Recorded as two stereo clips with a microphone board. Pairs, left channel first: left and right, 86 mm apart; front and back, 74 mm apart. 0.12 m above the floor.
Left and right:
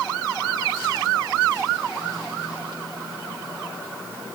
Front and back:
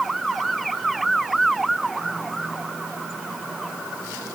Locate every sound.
Only background noise.